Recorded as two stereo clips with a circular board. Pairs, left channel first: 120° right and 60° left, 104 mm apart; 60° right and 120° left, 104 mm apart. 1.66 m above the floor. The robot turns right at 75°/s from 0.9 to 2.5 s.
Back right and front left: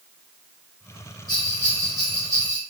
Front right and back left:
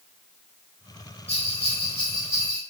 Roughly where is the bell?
Right.